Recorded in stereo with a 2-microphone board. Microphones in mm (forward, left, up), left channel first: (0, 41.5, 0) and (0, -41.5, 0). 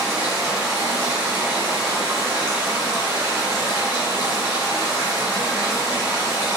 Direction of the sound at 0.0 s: 35° right (ahead or behind).